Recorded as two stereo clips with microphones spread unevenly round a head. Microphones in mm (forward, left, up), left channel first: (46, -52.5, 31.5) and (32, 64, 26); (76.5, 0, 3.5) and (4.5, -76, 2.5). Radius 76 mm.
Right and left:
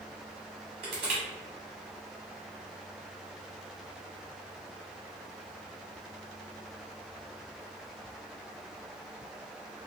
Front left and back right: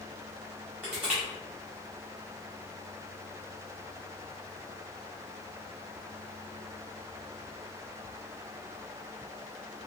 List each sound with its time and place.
0.8 s crushing: 150° left, 1.4 m